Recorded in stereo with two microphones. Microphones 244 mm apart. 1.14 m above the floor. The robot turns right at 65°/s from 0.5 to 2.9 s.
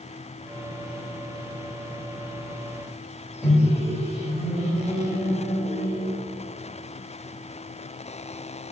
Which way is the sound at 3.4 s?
Centre (ahead or behind).